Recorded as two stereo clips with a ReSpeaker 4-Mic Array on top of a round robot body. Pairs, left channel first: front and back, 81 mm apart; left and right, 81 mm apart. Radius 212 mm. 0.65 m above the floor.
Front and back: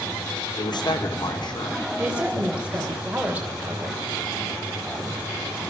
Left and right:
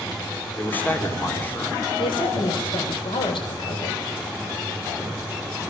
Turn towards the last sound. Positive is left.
turn(degrees=105)